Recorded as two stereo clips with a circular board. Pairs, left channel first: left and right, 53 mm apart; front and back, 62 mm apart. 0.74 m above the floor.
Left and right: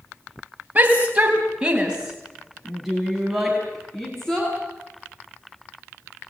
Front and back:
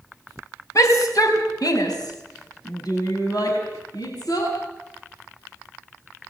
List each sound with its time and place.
0.8 s a shout: 30° right, 4 m; by 4.5 s 10° left, 6 m